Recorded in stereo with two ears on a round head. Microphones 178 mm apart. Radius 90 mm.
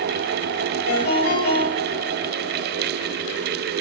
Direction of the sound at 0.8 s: 90° left.